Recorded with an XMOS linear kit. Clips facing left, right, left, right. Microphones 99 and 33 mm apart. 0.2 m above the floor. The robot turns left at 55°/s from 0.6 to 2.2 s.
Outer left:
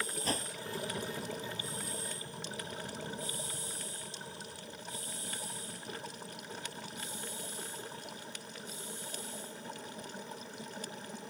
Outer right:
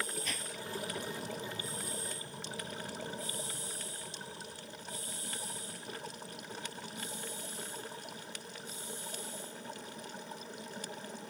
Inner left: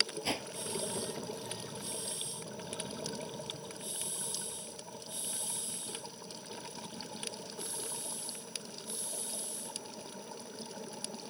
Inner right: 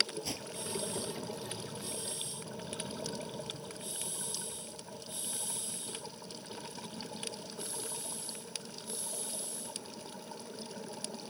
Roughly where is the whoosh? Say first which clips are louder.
Outer left 6 dB, inner left 5 dB; left.